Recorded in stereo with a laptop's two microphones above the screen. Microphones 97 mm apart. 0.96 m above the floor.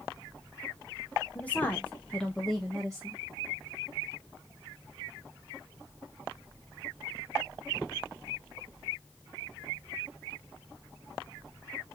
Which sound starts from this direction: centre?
A woman speaking, at 1.4 s.